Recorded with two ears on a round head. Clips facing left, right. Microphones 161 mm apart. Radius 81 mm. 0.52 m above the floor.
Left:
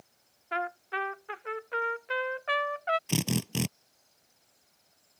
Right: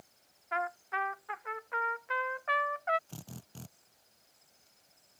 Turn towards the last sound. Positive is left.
turn(degrees=80)